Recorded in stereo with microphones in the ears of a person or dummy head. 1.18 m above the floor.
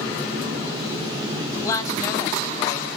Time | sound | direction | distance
1.6 | a woman speaking | 15° left (ahead or behind) | 2.5 m